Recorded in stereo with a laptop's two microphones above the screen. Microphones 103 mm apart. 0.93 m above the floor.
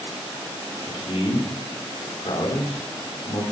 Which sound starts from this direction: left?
A man speaking, at 0.8 s.